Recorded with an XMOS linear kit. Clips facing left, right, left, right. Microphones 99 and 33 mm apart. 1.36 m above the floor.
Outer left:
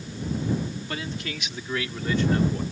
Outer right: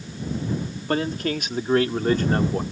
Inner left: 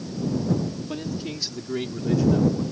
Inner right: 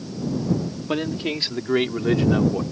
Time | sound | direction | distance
0.9 | a man speaking | 45° right (ahead or behind) | ?